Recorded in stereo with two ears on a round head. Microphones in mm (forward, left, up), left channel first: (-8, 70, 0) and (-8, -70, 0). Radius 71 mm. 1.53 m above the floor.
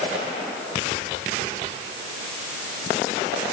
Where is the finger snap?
No finger snap in this recording.